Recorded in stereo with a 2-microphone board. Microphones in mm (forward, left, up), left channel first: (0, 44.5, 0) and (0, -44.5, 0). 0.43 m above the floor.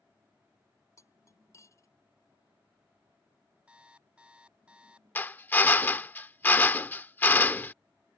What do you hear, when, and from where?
1.0 s cutlery clinking: 35° left (ahead or behind)
3.7 s an alarm clock: 10° right (ahead or behind)
5.2 s a drill: 20° left (ahead or behind)